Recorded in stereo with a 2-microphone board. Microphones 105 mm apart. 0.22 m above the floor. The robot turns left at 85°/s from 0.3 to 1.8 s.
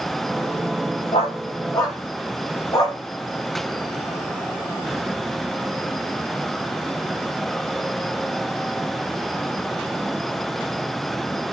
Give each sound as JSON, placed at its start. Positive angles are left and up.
{"t": 1.1, "sound": "a dog barking", "side_deg": 85, "distance_m": 9.5}